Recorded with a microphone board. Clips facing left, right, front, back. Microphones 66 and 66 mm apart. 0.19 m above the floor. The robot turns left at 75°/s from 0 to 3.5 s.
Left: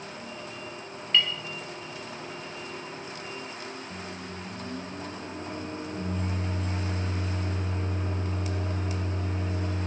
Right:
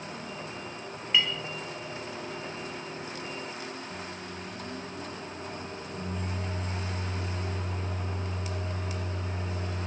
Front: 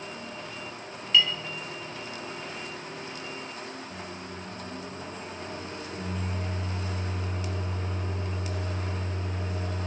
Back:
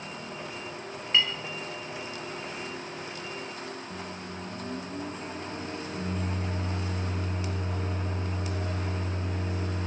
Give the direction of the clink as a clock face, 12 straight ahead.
5 o'clock.